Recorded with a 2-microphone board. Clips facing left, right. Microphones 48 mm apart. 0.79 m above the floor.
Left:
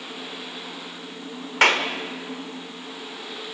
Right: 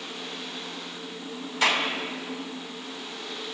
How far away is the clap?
About 2 m.